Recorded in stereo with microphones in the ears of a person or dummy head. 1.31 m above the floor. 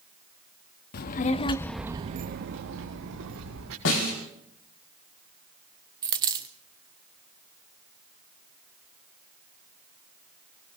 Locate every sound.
0.9 s a child speaking: 55° left (ahead or behind), 1.2 m; by 3.8 s 75° right (ahead or behind), 2 m
3.9 s a snare drum: 70° left (ahead or behind), 5 m
6.0 s a dropped coin: 20° right (ahead or behind), 0.9 m